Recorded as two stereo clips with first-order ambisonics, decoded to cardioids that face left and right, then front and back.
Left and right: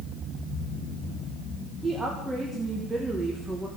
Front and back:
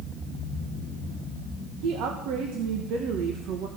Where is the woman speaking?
170° right, 1.3 m.